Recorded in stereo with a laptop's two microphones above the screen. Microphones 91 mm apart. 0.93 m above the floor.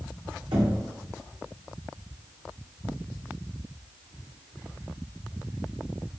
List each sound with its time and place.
0.5 s knocking: 90° right, 2.5 m